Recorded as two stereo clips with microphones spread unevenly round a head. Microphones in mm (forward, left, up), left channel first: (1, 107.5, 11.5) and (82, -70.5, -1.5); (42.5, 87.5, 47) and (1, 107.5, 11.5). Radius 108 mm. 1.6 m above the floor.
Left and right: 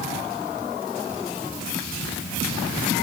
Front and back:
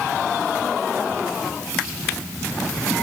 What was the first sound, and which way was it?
Only background noise.